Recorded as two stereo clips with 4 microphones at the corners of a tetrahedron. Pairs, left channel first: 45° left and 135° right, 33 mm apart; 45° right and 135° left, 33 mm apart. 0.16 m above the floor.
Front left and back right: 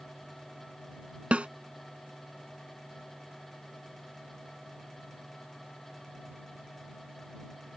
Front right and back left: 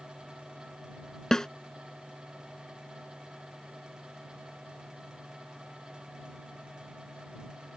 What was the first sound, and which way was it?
A snare drum, 110° right.